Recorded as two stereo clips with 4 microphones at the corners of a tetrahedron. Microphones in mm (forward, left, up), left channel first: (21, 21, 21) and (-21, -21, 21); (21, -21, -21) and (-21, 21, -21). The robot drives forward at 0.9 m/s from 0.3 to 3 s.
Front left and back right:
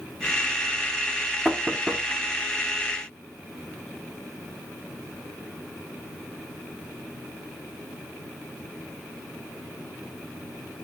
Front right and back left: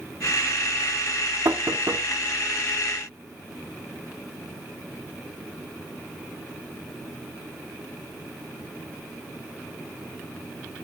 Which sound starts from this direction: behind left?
Knocking, at 1.4 s.